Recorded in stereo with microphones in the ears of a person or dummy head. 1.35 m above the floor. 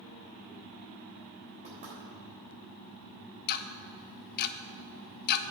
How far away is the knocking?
About 3.5 m.